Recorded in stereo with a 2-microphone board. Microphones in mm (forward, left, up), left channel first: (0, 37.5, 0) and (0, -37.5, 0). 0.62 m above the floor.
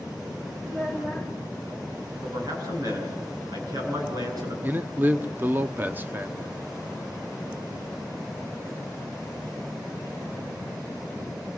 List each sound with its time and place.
0.6 s a child speaking: centre (ahead or behind), 1.9 m
2.2 s a man speaking: 60° right (ahead or behind), 8 m
4.6 s a man speaking: 25° right (ahead or behind), 0.9 m